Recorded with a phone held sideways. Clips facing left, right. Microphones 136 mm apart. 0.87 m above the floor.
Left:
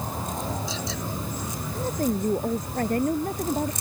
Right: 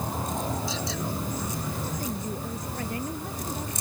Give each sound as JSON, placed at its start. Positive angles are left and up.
{"t": 1.8, "sound": "a woman speaking", "side_deg": 50}